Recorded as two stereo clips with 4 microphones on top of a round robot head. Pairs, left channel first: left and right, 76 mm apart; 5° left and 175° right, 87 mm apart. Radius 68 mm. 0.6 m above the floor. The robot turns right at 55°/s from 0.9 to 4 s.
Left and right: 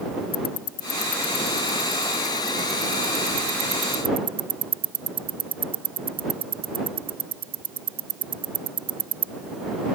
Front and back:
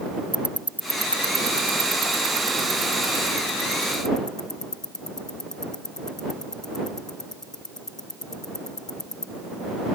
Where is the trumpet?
No trumpet in this recording.